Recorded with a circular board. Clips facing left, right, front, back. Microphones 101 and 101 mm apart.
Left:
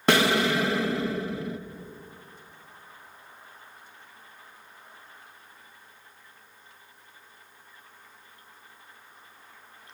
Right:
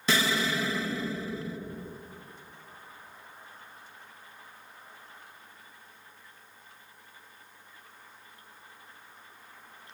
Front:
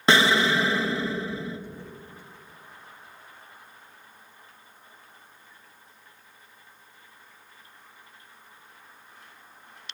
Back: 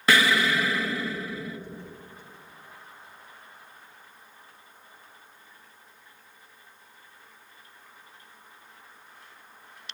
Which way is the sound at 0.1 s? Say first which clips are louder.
Left 6 dB, front 2 dB; 65° left.